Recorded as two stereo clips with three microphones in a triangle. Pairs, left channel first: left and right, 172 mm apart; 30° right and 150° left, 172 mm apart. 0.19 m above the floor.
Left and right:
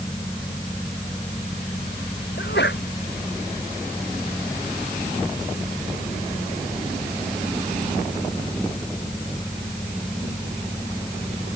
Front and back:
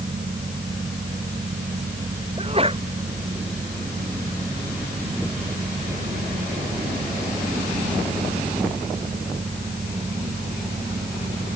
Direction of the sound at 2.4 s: 95° left.